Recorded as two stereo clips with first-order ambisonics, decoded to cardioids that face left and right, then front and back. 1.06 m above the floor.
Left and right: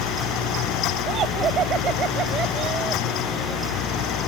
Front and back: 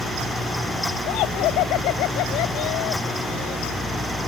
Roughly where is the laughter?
Ahead right.